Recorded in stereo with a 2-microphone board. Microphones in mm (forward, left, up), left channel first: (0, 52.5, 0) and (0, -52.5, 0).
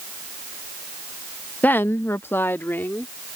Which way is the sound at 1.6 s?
15° left (ahead or behind).